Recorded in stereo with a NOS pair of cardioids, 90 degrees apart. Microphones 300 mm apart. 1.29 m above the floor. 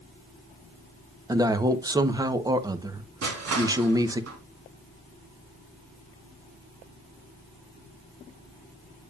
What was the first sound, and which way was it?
A man speaking, 10° right.